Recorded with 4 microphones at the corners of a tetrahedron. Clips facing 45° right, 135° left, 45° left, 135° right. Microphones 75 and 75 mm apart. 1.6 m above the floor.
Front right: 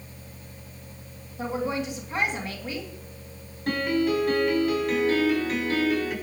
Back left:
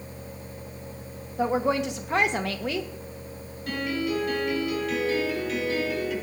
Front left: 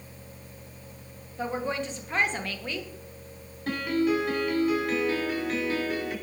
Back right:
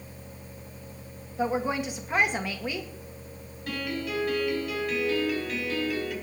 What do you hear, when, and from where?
1.4 s a woman speaking: 150° left, 1.9 m
3.7 s a piano: straight ahead, 6 m